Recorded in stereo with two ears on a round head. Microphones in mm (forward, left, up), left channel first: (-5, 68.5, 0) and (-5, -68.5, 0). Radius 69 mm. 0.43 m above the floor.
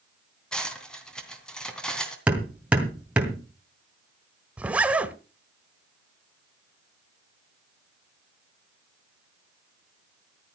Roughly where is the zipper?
Centre.